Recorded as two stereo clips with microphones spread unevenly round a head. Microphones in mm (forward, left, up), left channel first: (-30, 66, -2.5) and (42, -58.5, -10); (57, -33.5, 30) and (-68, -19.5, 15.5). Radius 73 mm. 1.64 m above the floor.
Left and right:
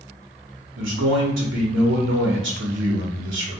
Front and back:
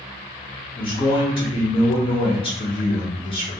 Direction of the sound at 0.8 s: 60° right.